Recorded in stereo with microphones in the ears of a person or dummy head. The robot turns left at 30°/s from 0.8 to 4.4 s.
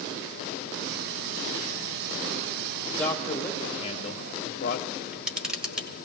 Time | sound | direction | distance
2.9 | a man speaking | 170° left | 0.7 m
4.9 | a camera shutter | 5° right (ahead or behind) | 1.4 m